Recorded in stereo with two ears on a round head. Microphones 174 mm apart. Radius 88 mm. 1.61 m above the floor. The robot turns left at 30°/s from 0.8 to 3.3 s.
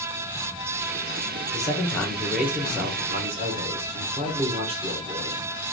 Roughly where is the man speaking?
Ahead.